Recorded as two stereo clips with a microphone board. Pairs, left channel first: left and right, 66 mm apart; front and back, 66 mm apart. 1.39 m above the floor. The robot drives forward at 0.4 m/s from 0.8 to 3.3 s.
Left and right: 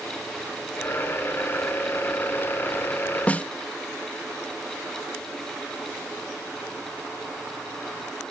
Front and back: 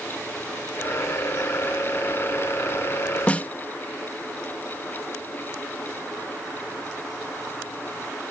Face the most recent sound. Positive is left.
turn(degrees=45)